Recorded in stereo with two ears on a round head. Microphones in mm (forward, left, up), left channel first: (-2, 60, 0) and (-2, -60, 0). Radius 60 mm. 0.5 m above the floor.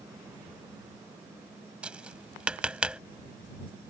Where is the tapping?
10° right (ahead or behind).